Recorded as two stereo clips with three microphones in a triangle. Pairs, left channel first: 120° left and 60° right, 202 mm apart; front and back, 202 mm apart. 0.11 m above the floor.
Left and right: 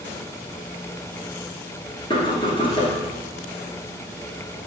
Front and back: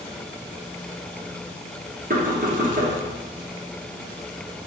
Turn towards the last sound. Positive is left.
turn(degrees=175)